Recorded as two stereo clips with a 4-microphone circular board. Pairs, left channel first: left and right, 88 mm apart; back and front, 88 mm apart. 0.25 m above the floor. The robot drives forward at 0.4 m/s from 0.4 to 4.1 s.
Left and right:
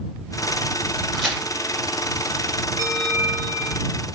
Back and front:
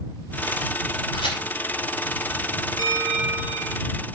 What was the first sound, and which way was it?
A crack, straight behind.